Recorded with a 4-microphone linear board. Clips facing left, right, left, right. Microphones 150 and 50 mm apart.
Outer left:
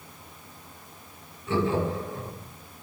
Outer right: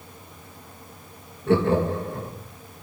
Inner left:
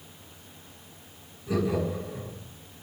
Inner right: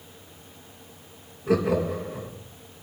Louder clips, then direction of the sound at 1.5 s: Outer right 5 dB, inner right 4 dB; 65° right (ahead or behind).